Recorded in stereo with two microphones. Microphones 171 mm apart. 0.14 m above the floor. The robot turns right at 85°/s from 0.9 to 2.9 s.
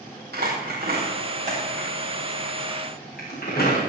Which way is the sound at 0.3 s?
80° right.